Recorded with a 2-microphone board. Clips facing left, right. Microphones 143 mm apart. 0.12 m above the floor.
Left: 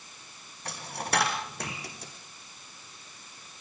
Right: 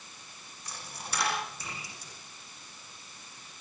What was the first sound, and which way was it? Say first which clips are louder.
A dropped coin: left 9 dB; 65° left (ahead or behind).